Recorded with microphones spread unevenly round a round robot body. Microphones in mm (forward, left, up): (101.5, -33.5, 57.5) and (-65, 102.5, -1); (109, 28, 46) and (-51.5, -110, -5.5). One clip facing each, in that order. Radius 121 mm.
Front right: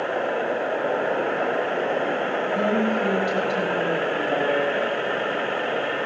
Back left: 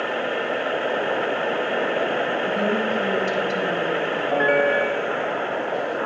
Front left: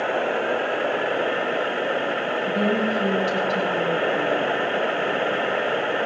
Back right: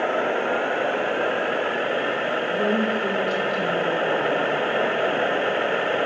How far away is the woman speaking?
About 8 m.